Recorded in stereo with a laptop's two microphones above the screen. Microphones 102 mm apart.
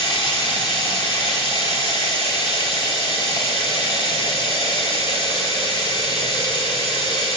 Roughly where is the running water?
Left.